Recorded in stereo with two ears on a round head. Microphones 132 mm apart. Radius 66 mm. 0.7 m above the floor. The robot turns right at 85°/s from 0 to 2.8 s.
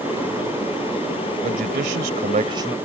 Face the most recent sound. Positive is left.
turn(degrees=-10)